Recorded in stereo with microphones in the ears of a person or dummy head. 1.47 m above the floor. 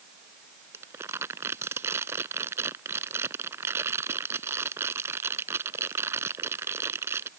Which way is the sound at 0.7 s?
15° right (ahead or behind).